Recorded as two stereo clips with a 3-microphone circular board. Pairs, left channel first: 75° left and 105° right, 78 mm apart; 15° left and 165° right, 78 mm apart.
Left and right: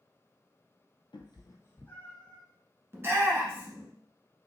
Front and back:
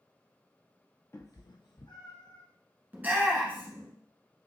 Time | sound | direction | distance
1.1 | a cat meowing | 75° left | 0.6 m
2.9 | a shout | 120° right | 1.3 m